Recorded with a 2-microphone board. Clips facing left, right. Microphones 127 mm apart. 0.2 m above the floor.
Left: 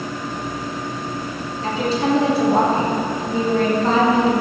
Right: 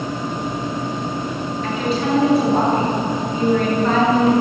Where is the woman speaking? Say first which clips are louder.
Left 2 dB; 35° left (ahead or behind), 3 m.